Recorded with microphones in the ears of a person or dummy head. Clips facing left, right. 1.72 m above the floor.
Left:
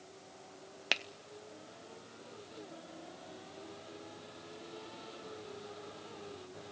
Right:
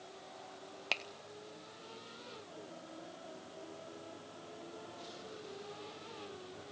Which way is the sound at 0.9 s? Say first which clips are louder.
Left 3 dB; 25° left (ahead or behind).